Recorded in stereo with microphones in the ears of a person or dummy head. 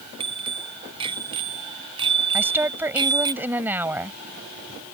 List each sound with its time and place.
0.2 s a bicycle bell: 30° right (ahead or behind); by 3.3 s 25° right (ahead or behind)
2.3 s a woman speaking: 10° right (ahead or behind)